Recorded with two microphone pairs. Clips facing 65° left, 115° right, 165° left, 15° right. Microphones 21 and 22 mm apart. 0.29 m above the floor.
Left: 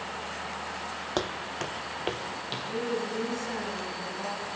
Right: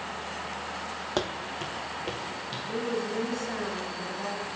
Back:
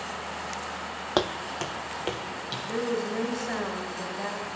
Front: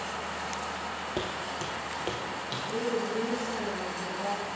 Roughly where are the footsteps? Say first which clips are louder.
Even, back 9 dB; behind left.